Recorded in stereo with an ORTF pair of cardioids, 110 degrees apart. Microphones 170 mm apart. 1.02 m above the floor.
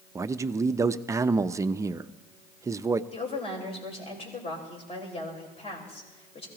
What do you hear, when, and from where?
0.1 s a man speaking: 20° right, 0.5 m
3.1 s a woman speaking: 35° left, 4.5 m